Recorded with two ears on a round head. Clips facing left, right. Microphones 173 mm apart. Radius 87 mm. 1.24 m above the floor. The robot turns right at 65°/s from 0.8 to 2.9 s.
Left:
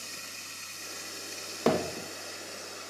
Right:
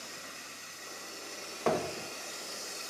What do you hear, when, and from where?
0.0 s running water: 80° left, 1.4 m; by 2.9 s 145° right, 1.4 m
1.7 s hammering: 50° left (ahead or behind), 1.1 m; by 2.1 s 20° left (ahead or behind), 1.1 m